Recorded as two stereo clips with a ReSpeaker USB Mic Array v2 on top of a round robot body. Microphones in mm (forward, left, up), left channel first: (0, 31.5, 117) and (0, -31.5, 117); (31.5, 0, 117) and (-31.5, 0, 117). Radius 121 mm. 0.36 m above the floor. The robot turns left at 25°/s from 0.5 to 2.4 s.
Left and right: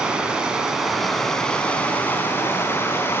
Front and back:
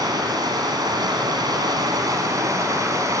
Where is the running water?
165° right, 3 m; by 3.2 s 145° left, 3 m.